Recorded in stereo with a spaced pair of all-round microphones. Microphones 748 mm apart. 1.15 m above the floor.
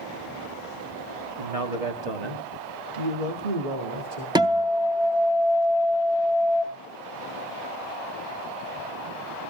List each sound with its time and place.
1.4 s a man speaking: 50° right (ahead or behind), 2.0 m; by 4.2 s 85° right, 2.5 m
4.3 s a guitar: 5° right (ahead or behind), 1.1 m